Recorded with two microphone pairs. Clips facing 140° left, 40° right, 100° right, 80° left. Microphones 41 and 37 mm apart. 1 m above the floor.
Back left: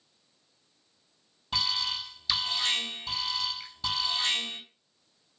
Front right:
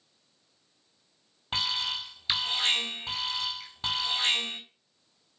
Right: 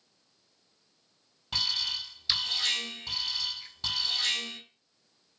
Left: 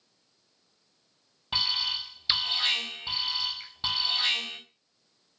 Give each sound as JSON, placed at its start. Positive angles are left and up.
{"t": 1.5, "sound": "an alarm", "azimuth_deg": 10, "distance_m": 4.0}
{"t": 3.6, "sound": "a finger snap", "azimuth_deg": 65, "distance_m": 6.0}